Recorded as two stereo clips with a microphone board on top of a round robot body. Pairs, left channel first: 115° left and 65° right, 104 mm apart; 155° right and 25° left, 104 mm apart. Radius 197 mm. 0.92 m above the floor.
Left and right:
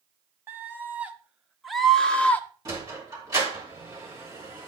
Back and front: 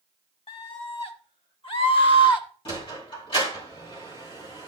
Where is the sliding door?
125° right, 3 m.